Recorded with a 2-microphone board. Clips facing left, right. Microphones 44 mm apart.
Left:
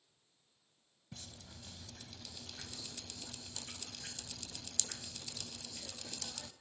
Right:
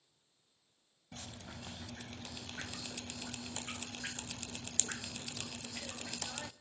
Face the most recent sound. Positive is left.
turn(degrees=-40)  # may be behind; listen again after turning